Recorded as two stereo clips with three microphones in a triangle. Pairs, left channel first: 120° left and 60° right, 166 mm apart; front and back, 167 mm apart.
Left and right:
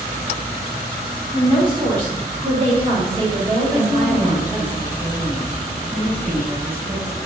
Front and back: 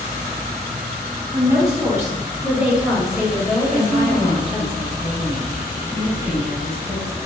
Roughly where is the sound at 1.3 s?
Behind right.